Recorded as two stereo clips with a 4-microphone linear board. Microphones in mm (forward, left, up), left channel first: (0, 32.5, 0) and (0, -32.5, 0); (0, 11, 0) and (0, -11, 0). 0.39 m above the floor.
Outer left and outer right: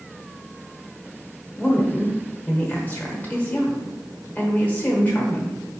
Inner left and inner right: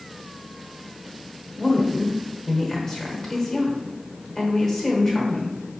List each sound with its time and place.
1.6 s a woman speaking: 25° left (ahead or behind), 1.1 m